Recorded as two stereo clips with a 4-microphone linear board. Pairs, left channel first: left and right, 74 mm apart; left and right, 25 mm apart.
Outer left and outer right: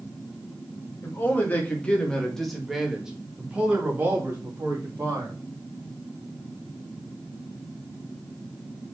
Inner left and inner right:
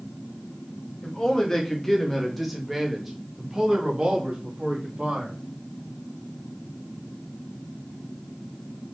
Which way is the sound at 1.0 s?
30° left (ahead or behind).